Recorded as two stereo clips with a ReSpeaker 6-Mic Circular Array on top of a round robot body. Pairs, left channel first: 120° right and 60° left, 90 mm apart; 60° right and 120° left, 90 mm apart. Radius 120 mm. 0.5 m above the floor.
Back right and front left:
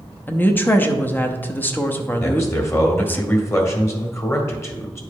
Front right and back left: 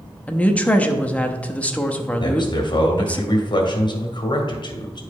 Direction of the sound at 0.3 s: 105° right.